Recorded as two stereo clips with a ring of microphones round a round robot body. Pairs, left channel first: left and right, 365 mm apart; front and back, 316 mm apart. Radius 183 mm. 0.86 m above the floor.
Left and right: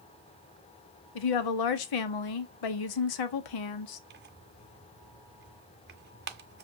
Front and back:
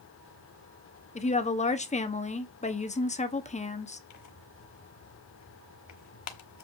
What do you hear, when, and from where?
1.1 s a woman speaking: 70° left, 1.3 m
4.1 s tearing paper: 30° right, 1.1 m